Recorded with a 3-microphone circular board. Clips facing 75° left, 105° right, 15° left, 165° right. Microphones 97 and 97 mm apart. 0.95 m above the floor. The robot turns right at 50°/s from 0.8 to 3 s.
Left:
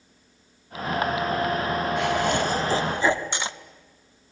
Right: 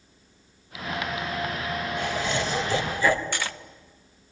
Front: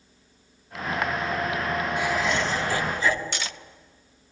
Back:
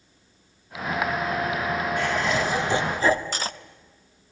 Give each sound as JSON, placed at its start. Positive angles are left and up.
{"t": 2.0, "sound": "laughter", "azimuth_deg": 90, "distance_m": 2.0}
{"t": 3.3, "sound": "cutlery clinking", "azimuth_deg": 145, "distance_m": 0.6}